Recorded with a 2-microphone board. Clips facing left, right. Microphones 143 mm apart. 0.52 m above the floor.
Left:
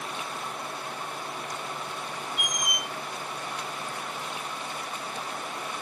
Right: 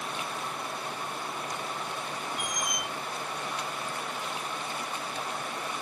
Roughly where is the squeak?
Centre.